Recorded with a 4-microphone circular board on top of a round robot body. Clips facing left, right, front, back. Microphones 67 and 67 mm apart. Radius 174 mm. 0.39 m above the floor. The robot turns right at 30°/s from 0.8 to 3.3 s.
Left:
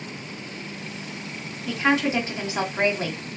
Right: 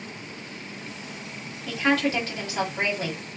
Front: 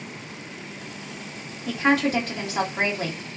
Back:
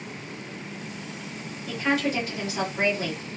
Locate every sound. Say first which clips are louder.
1.7 s a woman speaking: left 1 dB, front 4 dB; 10° left, 2 m; by 3.2 s 55° left, 2 m